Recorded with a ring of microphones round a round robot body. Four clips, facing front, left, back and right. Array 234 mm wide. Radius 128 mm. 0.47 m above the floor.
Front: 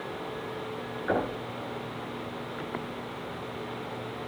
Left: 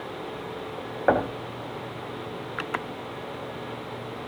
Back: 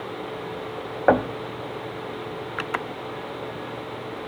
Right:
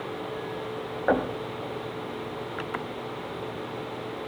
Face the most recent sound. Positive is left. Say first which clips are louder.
# left 2 dB, back 10 dB
turn(degrees=165)